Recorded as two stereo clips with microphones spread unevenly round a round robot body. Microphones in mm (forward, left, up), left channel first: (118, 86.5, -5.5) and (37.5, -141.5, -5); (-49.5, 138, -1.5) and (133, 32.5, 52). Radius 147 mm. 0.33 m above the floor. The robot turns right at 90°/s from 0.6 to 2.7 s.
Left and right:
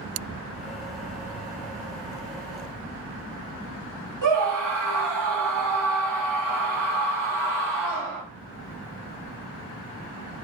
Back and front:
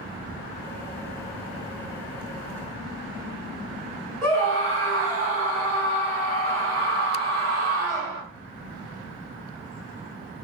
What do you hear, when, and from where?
4.2 s a scream: 110° right, 1.8 m